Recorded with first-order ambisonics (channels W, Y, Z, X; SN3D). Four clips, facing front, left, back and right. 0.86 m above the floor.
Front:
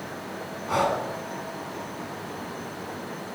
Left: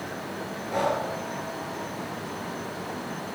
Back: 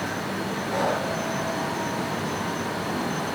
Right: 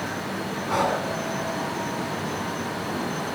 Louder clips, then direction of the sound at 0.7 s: Right 2 dB, front 2 dB; 50° right.